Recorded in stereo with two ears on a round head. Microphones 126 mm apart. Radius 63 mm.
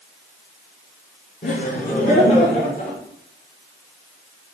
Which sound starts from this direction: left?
Laughter, at 1.4 s.